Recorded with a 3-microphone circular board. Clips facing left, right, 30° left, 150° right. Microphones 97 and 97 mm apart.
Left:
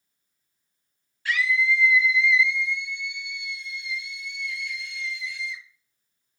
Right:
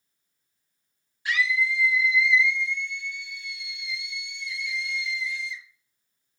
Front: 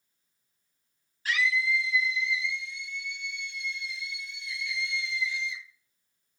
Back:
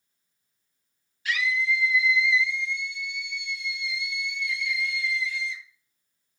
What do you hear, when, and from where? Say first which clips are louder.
1.2 s a scream: left 2 dB, back 1 dB; 15° right, 3 m; by 5.6 s 100° left, 2.5 m